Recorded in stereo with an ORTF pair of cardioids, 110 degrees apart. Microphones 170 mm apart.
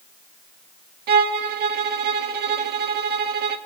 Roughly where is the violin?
Ahead right.